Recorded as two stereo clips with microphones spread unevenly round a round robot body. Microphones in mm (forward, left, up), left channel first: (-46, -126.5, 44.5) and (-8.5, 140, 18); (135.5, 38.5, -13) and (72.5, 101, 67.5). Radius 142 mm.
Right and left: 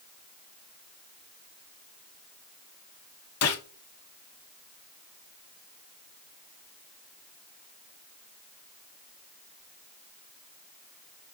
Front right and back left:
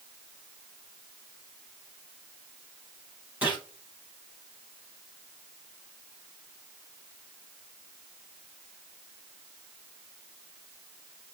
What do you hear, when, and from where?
3.4 s a gunshot: 135° right, 1.2 m